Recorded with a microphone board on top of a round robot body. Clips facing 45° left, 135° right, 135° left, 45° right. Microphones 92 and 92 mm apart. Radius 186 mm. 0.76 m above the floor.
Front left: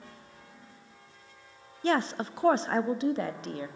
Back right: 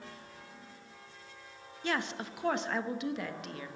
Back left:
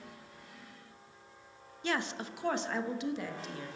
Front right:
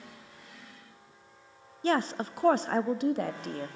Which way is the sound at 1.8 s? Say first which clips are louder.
Front left 7 dB, front right 7 dB; 5° right.